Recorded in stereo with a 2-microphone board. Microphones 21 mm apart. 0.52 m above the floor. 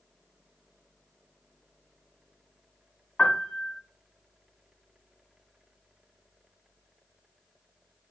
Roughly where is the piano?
Left.